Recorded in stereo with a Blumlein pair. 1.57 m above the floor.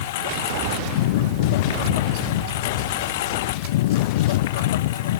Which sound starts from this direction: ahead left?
A lawn mower, at 0.0 s.